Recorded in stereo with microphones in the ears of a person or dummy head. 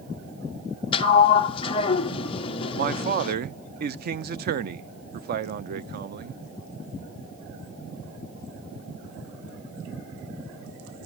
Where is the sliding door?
30° left (ahead or behind), 0.8 m.